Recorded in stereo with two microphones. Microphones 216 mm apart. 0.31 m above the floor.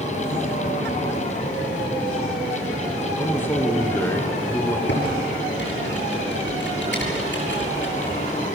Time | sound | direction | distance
3.2 | a man speaking | 10° left (ahead or behind) | 3.5 m
4.9 | typing on a keyboard | 60° left (ahead or behind) | 7 m